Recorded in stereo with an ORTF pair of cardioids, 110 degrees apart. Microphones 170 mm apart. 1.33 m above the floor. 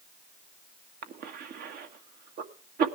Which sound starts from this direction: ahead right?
A cough, at 1.0 s.